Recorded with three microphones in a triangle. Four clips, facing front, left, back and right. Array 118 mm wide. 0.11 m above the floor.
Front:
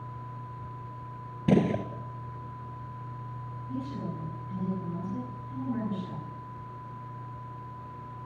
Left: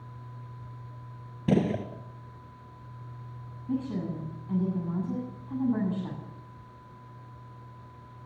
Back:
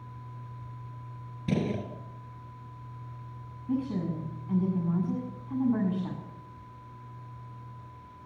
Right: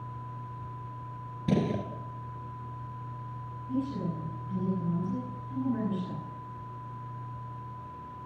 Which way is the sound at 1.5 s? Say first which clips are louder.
Left 3 dB, front 6 dB; 25° left.